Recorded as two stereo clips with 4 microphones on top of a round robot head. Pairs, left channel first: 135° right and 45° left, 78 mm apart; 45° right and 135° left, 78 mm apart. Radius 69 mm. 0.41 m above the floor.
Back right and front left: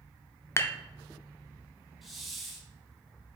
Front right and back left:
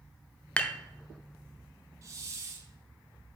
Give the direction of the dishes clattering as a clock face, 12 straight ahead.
4 o'clock.